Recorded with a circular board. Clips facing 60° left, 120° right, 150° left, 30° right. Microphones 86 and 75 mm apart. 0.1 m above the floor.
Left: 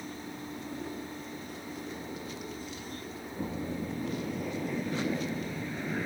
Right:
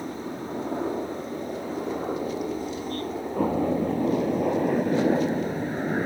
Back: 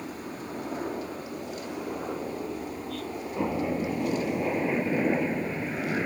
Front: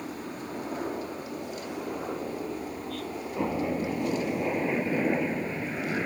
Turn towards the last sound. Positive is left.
turn(degrees=-125)